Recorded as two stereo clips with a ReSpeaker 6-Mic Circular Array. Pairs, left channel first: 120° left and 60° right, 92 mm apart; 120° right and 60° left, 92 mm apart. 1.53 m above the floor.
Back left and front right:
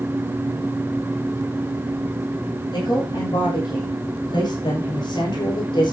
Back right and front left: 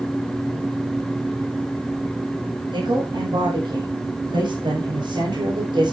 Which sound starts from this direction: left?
A woman speaking, at 2.7 s.